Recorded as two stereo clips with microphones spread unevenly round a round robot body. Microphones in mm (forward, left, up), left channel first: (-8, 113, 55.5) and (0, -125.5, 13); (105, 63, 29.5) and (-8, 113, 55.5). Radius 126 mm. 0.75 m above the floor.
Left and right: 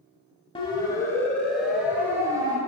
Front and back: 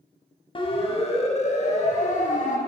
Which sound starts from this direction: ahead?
A siren, at 0.6 s.